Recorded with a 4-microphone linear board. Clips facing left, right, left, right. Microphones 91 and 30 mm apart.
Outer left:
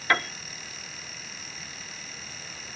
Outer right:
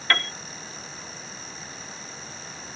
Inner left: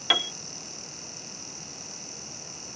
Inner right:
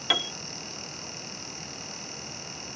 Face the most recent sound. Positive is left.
turn(degrees=15)  # may be behind; listen again after turning